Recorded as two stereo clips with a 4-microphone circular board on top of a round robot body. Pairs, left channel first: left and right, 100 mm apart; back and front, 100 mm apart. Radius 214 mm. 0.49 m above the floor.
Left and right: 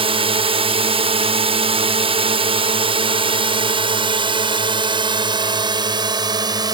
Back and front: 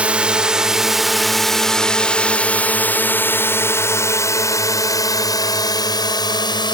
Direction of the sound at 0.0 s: 75° right.